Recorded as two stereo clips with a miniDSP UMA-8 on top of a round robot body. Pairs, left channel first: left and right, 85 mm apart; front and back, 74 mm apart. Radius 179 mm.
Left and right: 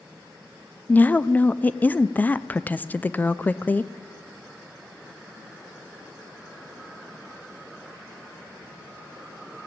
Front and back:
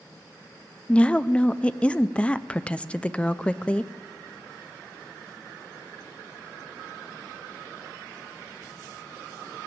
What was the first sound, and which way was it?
A woman speaking, 50° left.